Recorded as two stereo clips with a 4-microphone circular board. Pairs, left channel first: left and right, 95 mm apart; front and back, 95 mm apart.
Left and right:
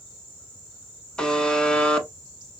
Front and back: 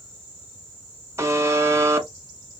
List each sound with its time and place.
1.2 s a buzzer: 160° left, 0.8 m